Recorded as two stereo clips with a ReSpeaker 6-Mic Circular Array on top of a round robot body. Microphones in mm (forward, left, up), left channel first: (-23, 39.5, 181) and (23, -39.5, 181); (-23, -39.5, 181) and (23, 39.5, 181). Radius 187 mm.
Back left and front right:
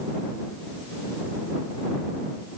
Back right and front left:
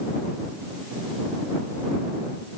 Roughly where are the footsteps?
No footsteps in this recording.